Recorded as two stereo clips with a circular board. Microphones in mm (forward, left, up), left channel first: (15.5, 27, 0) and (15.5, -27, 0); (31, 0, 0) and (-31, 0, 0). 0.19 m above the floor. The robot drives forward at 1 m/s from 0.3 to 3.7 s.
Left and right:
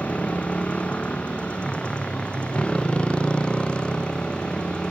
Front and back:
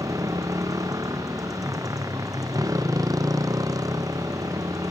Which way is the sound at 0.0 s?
155° left.